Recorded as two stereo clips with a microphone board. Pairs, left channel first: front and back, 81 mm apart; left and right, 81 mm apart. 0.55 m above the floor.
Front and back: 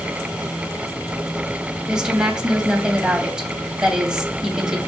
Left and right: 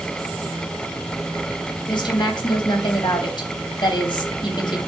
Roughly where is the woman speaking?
Left.